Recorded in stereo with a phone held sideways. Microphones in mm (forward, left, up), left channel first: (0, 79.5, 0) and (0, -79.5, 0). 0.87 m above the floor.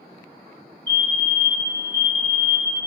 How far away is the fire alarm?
About 1.6 m.